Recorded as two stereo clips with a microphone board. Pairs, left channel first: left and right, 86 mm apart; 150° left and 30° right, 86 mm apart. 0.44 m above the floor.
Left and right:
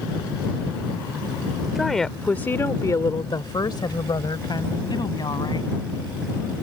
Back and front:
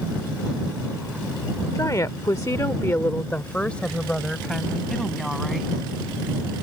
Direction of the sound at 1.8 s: 175° right.